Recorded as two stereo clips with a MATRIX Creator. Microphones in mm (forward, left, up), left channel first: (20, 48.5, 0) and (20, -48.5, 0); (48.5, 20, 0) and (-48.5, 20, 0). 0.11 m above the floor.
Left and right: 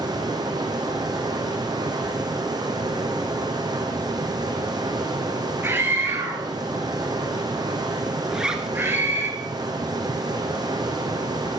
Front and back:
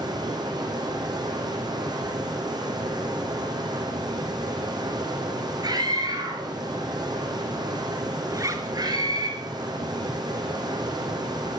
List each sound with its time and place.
0.0 s running water: 135° right, 4 m
5.6 s a scream: 150° right, 2.5 m
8.3 s a zipper: 170° right, 2 m